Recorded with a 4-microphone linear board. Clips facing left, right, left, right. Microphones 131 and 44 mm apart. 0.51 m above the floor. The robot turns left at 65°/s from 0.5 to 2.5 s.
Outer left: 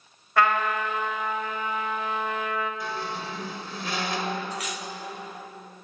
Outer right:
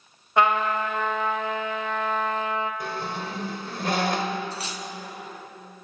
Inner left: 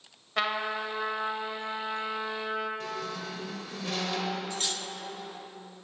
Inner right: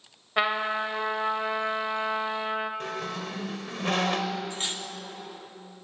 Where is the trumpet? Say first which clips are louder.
Outer right 2 dB, inner right 4 dB; 20° right, 1.2 m; by 2.7 s 150° right, 1.2 m.